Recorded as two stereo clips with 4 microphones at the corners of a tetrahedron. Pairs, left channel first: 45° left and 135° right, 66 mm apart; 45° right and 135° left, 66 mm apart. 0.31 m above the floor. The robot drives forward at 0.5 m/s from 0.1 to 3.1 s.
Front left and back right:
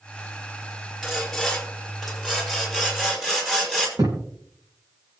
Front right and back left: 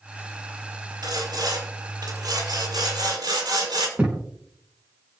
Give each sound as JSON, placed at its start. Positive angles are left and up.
{"t": 1.0, "sound": "sawing", "azimuth_deg": 135, "distance_m": 4.5}
{"t": 4.0, "sound": "a thud", "azimuth_deg": -155, "distance_m": 5.0}